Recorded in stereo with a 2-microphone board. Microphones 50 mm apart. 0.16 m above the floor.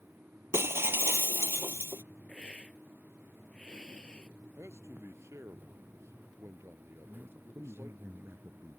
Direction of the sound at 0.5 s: 55° right (ahead or behind).